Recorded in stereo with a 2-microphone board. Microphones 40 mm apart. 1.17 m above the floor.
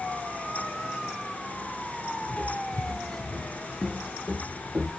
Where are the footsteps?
45° left (ahead or behind), 1.8 m; by 4.9 s 50° right (ahead or behind), 2 m.